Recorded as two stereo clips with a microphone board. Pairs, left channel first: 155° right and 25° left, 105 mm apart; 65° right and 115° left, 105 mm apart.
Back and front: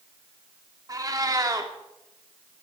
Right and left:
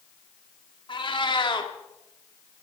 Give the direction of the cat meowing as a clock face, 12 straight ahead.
1 o'clock.